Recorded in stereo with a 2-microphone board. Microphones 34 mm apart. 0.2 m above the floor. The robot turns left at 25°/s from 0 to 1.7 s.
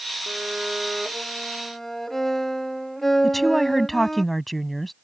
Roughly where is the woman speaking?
Centre.